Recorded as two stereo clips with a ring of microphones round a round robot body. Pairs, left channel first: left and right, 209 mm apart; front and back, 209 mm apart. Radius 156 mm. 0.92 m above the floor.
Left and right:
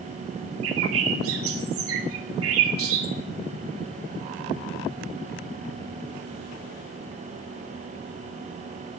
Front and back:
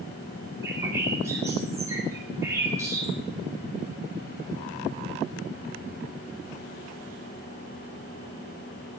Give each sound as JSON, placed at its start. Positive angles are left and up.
{"t": 0.6, "sound": "a bird", "azimuth_deg": -100, "distance_m": 2.0}